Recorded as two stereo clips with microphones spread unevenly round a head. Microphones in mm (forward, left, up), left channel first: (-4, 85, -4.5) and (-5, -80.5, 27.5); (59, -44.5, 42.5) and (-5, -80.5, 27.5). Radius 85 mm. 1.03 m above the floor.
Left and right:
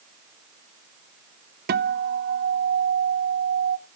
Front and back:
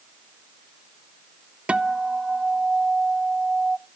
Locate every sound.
1.7 s a guitar: 95° right, 0.6 m